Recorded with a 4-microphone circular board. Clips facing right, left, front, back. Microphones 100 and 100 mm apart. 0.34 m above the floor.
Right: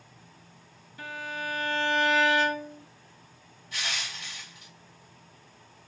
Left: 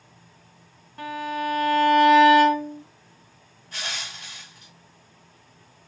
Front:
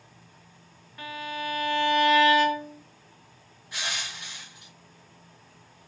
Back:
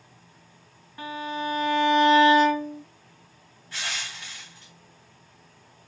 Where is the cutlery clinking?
I don't hear cutlery clinking.